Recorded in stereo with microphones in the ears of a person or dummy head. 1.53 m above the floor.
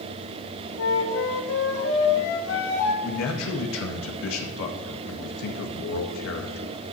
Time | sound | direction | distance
0.8 | a flute | 75° left (ahead or behind) | 2 m
3.0 | a man speaking | 75° left (ahead or behind) | 1.9 m